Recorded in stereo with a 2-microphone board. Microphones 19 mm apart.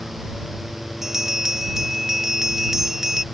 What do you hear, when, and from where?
1.0 s a bell: 25° right (ahead or behind)